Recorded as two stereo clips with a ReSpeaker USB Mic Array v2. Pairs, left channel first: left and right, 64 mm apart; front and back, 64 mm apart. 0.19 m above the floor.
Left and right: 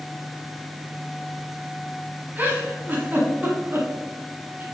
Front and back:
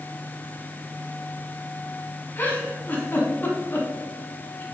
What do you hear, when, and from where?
2.4 s a giggle: 45° right, 1.2 m